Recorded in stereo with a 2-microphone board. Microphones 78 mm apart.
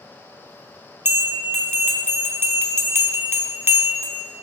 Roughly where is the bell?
Right.